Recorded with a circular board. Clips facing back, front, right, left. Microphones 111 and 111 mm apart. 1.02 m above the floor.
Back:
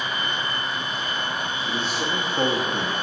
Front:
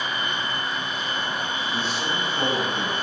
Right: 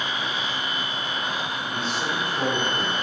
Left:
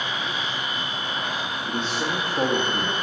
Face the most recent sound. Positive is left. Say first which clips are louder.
# back 2 dB, left 3 dB
turn(degrees=120)